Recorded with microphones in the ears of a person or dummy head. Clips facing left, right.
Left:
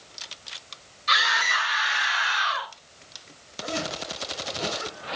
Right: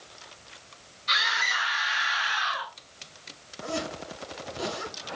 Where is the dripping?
No dripping in this recording.